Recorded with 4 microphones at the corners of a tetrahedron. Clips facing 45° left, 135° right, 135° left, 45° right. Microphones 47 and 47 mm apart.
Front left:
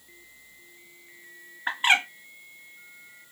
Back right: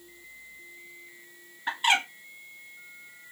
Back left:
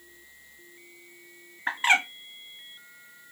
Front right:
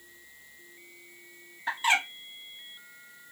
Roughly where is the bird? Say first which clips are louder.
Front left 2 dB, back left 3 dB; left.